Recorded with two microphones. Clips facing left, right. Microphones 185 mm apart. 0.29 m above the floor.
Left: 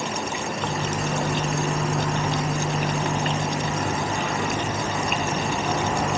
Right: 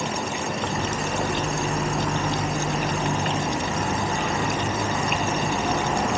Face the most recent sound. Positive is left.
turn(degrees=80)